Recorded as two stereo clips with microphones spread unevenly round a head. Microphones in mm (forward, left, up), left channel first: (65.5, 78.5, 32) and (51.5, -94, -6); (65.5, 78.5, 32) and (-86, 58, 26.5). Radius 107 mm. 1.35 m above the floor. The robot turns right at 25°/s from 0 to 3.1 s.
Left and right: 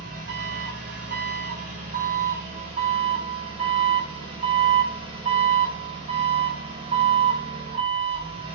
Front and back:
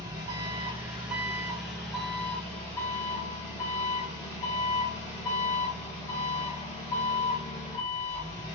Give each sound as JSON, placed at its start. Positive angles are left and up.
{"t": 0.0, "sound": "an engine running", "azimuth_deg": -120, "distance_m": 1.0}